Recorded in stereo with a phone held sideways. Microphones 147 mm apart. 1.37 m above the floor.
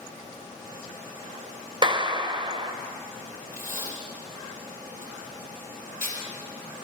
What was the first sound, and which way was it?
A clap, 35° right (ahead or behind).